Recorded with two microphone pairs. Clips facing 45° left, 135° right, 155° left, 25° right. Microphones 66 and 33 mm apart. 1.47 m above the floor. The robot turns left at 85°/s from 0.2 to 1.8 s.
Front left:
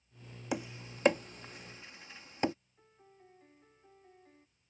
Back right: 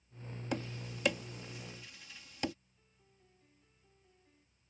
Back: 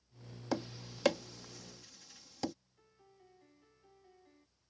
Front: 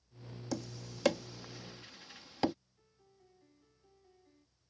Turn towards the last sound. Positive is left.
turn(degrees=85)